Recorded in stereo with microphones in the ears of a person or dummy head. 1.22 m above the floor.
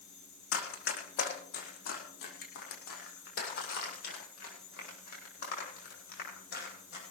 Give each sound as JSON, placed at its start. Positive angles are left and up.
{"t": 0.5, "sound": "running footsteps", "side_deg": 70, "distance_m": 4.0}